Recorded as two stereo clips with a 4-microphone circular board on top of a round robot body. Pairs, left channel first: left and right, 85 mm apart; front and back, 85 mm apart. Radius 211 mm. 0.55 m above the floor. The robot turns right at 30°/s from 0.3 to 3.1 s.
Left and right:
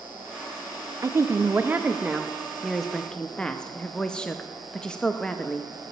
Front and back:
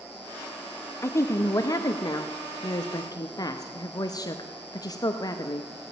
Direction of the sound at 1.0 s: 50° right.